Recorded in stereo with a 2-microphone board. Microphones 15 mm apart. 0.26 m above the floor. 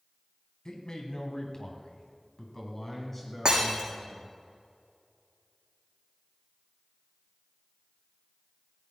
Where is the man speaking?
50° left (ahead or behind), 2.5 m; by 4.3 s 5° left (ahead or behind), 4 m.